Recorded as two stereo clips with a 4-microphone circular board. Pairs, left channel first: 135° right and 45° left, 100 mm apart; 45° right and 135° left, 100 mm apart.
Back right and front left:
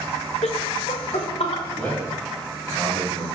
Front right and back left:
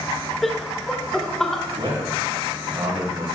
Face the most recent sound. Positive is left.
turn(degrees=150)